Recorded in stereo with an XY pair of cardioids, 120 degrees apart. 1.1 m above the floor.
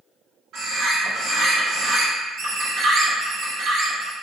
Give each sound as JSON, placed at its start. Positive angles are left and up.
{"t": 0.5, "sound": "a bird", "azimuth_deg": -70, "distance_m": 1.5}